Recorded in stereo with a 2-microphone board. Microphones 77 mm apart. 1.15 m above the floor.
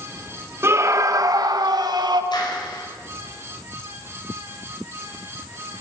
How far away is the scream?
About 1.4 m.